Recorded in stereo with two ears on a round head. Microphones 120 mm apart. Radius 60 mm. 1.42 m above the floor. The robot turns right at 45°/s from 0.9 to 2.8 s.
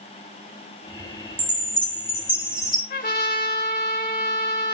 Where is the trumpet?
70° left (ahead or behind), 2.0 m.